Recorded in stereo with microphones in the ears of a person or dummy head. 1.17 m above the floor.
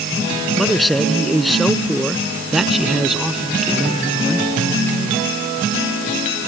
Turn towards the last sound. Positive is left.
turn(degrees=0)  # may be behind; listen again after turning